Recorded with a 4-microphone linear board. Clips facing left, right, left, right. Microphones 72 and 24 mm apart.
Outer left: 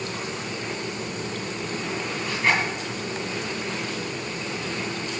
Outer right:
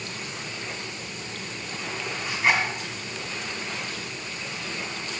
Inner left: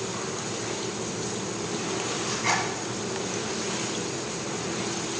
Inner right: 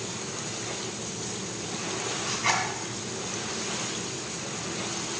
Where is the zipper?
5° right (ahead or behind), 1.9 m.